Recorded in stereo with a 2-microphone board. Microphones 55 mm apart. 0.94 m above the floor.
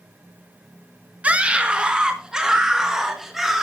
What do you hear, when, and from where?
1.2 s a scream: 25° right (ahead or behind), 1.2 m; by 3.6 s 5° right (ahead or behind), 2.5 m